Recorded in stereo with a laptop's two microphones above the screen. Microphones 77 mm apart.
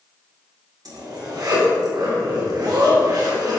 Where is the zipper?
55° right (ahead or behind), 1.9 m.